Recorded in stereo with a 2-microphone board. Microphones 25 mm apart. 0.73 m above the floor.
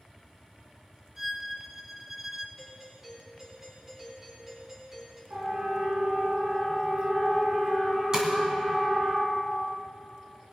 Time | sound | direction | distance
1.2 | a violin | 10° right (ahead or behind) | 0.7 m
2.6 | a doorbell | 20° right (ahead or behind) | 3.5 m
5.3 | a siren | 75° right (ahead or behind) | 6 m
8.1 | tapping | 30° right (ahead or behind) | 2.5 m